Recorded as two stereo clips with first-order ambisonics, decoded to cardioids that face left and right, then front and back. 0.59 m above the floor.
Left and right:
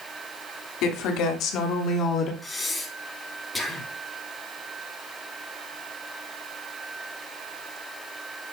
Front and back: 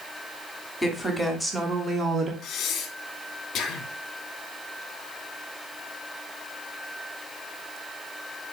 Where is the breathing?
10° left, 1.0 m.